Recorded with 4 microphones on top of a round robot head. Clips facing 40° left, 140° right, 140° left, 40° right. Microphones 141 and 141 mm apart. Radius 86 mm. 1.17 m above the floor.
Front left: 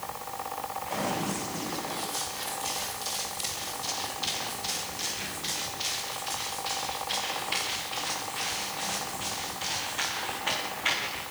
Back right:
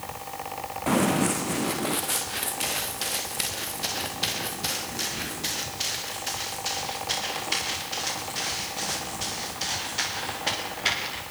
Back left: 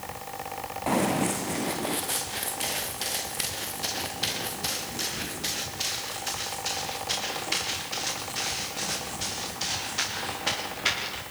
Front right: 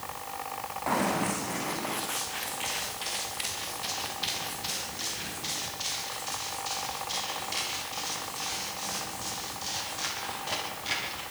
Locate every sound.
0.9 s running footsteps: 150° right, 5 m; by 11.2 s 165° left, 12.5 m